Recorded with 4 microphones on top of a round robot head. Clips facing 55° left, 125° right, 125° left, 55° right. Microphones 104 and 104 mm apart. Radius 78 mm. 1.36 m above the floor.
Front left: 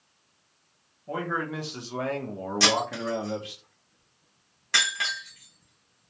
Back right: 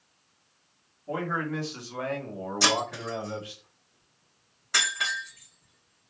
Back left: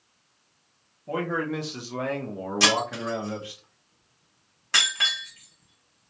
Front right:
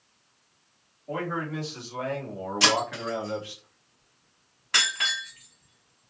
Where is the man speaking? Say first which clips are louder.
Even, back left 3 dB; 145° left, 1.1 m; by 3.6 s 50° left, 1.2 m.